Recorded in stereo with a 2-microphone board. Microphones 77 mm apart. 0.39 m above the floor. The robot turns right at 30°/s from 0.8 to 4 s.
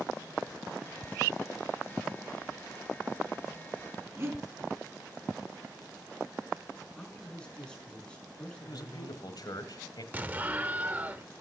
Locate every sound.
4.2 s breathing: 35° right (ahead or behind), 3 m
7.0 s a man speaking: 10° left (ahead or behind), 5 m
8.6 s a man speaking: 65° left (ahead or behind), 1.6 m
10.1 s an explosion: 25° right (ahead or behind), 0.9 m